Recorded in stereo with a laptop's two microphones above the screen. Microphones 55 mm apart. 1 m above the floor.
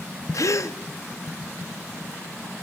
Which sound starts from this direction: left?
A gasp, at 0.3 s.